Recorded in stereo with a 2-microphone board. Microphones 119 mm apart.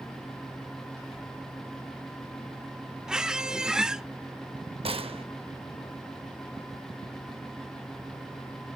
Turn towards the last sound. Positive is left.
turn(degrees=-55)  # may be behind; listen again after turning